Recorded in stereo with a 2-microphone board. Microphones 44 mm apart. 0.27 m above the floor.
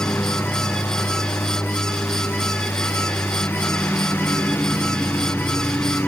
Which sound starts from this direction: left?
A lawn mower, at 0.0 s.